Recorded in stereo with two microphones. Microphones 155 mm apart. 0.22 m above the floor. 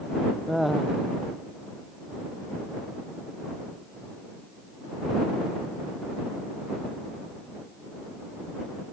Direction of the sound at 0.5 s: Centre (ahead or behind).